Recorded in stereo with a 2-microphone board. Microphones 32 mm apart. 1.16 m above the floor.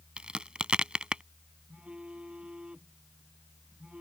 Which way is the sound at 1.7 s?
35° right (ahead or behind).